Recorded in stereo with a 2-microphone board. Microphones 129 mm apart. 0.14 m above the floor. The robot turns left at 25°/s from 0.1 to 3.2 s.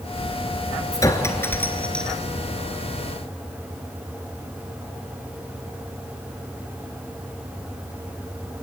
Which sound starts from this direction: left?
A clink, at 0.9 s.